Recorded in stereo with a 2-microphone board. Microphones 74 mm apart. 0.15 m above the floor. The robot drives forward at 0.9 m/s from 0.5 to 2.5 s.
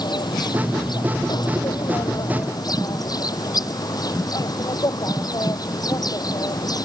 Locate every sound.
0.0 s an insect: 75° left (ahead or behind); by 6.9 s 65° left (ahead or behind)